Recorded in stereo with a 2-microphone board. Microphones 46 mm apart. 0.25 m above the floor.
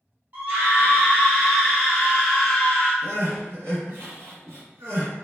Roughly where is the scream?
Right.